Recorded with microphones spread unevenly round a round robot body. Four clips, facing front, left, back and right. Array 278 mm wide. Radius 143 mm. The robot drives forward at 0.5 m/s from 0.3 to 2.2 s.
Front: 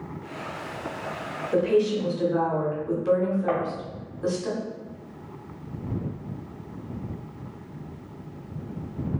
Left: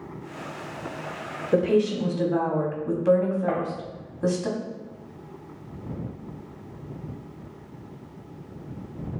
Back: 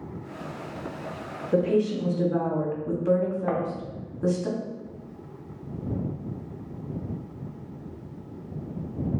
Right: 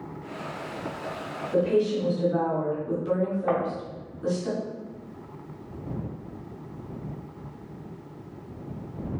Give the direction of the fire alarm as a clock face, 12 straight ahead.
I don't hear a fire alarm.